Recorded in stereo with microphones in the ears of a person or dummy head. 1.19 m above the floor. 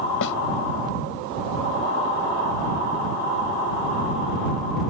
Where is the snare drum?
70° left (ahead or behind).